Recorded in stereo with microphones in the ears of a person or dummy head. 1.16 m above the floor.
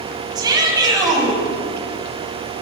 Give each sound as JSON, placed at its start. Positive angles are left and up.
{"t": 0.3, "sound": "a shout", "side_deg": -15, "distance_m": 8.5}